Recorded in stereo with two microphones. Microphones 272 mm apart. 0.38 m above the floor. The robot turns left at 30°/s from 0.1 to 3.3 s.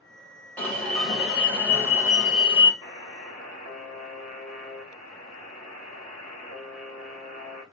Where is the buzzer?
15° left (ahead or behind), 1.9 m; by 7.6 s 30° left (ahead or behind), 1.9 m.